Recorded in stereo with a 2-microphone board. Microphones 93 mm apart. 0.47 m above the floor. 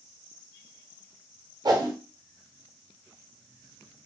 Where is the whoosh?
45° right (ahead or behind), 0.7 m.